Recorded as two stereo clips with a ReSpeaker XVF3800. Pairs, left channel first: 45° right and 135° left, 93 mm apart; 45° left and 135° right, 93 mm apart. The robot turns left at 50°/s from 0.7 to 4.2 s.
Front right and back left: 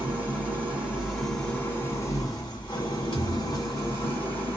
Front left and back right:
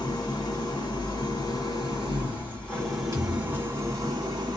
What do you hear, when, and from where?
0.0 s an engine running: 65° left, 1.7 m; by 4.6 s 110° right, 1.7 m
3.1 s a thud: 80° right, 1.5 m; by 3.6 s 105° right, 1.5 m